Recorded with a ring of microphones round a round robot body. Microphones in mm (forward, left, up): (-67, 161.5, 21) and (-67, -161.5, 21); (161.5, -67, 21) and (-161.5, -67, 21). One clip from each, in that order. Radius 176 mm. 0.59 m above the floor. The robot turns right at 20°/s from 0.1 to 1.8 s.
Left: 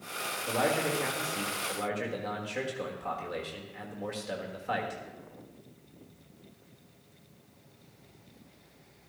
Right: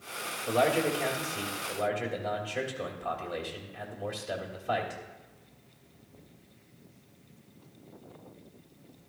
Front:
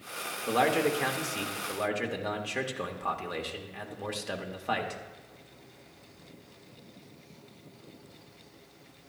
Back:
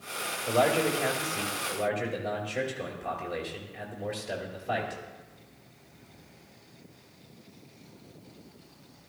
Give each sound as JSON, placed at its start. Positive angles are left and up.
{"t": 0.5, "sound": "a man speaking", "azimuth_deg": -10, "distance_m": 1.6}